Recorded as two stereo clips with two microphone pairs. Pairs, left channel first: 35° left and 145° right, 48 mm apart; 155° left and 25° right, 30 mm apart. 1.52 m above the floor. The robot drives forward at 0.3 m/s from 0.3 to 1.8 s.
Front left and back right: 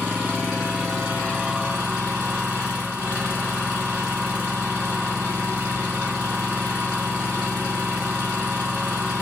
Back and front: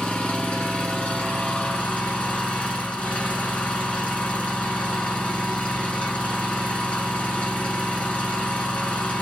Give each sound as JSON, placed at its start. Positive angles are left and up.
{"t": 0.0, "sound": "an engine running", "azimuth_deg": 150, "distance_m": 1.8}